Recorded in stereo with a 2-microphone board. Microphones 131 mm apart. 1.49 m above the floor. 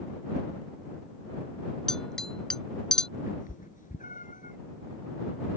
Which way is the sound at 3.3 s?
85° left.